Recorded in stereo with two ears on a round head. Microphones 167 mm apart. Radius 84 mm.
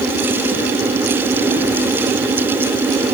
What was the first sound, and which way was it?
Only background noise.